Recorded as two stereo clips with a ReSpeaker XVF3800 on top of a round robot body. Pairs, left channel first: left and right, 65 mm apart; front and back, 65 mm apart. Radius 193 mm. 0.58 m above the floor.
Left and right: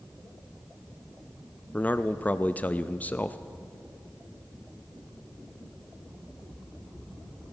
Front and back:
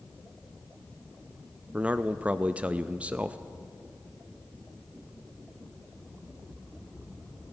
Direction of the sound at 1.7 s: 130° left.